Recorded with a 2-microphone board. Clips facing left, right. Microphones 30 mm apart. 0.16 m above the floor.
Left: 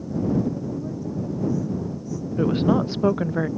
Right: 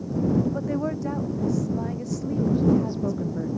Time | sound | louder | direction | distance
0.5 | a woman speaking | right 3 dB | 75° right (ahead or behind) | ?
2.4 | a woman speaking | left 1 dB | 85° left | ?